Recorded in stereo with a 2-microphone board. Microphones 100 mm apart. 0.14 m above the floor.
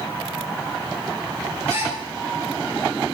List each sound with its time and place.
1.7 s a gasp: 35° right (ahead or behind), 1.9 m